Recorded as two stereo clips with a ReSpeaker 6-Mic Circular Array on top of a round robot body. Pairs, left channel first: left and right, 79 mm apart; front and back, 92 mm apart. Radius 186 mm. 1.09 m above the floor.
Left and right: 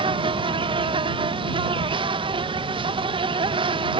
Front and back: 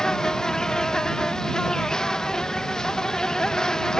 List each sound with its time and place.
0.0 s an insect: 85° right